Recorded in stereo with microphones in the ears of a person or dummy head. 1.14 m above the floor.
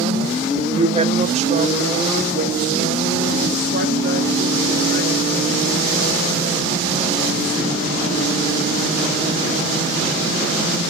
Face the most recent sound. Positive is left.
turn(degrees=-45)  # may be behind; listen again after turning